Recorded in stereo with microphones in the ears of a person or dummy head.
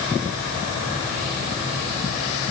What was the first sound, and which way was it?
Only background noise.